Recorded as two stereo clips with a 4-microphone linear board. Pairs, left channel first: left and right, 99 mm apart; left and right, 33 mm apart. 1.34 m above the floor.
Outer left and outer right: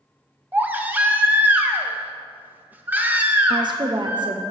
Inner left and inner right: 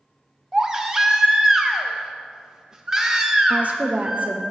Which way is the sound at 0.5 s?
20° right (ahead or behind).